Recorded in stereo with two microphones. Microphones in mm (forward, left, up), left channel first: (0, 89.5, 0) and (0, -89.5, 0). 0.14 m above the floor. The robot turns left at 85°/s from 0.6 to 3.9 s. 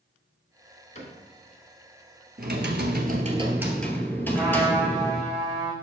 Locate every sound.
0.9 s a cupboard door: 40° left (ahead or behind), 2.0 m; by 1.2 s 35° left (ahead or behind), 2.0 m
2.4 s typing on a keyboard: 60° right, 0.9 m; by 5.3 s 170° left, 0.9 m
4.3 s a trumpet: centre (ahead or behind), 2.5 m